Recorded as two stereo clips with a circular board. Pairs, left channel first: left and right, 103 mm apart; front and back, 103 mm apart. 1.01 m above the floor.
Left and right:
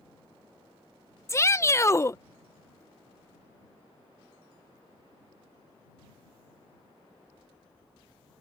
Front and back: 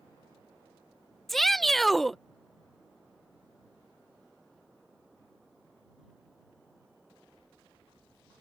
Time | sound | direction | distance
1.3 | a shout | 85° left | ?